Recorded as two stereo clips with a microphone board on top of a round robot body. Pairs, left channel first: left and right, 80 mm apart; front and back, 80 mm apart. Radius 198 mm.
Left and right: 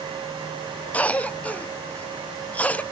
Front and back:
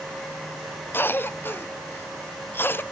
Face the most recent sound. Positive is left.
turn(degrees=35)